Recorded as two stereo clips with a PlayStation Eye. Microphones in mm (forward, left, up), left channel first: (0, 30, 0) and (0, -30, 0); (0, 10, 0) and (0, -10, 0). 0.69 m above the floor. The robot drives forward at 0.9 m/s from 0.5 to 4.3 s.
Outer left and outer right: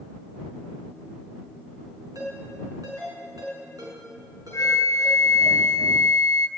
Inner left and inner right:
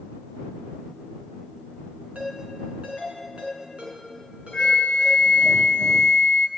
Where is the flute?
55° left (ahead or behind), 0.8 m.